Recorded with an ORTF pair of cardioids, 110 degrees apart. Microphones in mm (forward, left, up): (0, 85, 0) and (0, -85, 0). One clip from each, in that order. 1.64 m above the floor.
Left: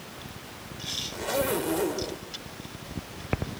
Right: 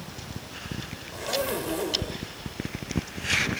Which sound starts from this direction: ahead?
A zipper, at 1.1 s.